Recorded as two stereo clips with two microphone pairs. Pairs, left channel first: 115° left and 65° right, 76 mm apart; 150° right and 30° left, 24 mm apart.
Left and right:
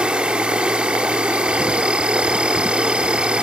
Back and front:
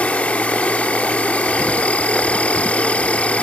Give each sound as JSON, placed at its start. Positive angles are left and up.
{"t": 0.0, "sound": "an insect", "azimuth_deg": -140}